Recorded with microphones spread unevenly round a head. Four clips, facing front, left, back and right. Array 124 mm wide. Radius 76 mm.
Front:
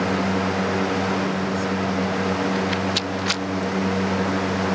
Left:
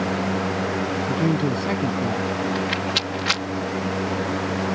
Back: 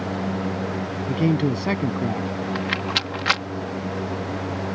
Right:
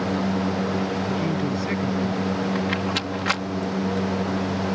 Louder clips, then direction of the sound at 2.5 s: Even, front 3 dB; 160° right.